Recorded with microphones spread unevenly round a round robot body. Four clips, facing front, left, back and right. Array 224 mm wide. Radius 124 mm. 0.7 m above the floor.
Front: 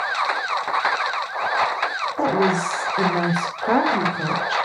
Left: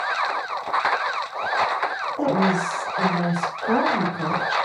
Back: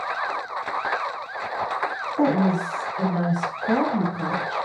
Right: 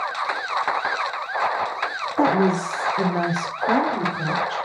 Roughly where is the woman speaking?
Ahead right.